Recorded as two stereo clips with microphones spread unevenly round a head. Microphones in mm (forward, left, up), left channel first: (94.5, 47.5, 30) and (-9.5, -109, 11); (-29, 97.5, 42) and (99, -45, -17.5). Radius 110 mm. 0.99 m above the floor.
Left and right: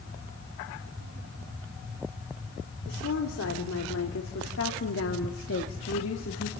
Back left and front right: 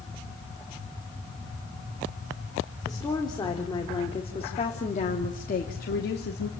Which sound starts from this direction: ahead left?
A woman speaking, at 2.9 s.